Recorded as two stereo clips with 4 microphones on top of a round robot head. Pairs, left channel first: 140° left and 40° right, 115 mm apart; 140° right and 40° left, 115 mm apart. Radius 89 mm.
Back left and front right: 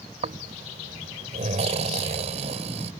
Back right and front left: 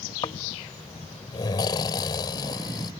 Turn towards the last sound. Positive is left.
turn(degrees=-80)